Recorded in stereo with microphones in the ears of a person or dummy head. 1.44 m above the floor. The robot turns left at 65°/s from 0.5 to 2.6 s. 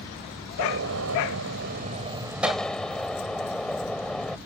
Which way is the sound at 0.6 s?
55° right.